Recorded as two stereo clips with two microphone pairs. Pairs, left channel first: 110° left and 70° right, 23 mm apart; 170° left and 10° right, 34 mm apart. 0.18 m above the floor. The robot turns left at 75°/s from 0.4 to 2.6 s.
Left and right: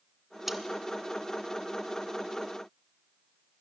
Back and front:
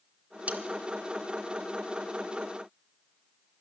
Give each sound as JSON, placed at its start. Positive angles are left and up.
{"t": 0.5, "sound": "cutlery clinking", "azimuth_deg": 0, "distance_m": 1.2}